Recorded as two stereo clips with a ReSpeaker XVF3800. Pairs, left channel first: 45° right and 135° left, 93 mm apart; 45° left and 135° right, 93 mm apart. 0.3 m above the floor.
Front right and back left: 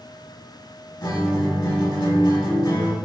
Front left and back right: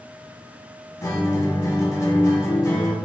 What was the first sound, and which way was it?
A guitar, 10° right.